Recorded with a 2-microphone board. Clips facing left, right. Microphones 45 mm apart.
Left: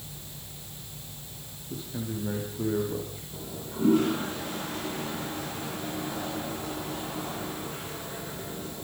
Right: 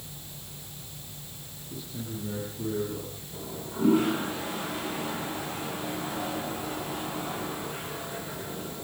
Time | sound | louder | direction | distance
1.7 | a man speaking | left 3 dB | 50° left (ahead or behind) | 7 m
3.3 | a toilet flushing | right 1 dB | 5° right (ahead or behind) | 6.5 m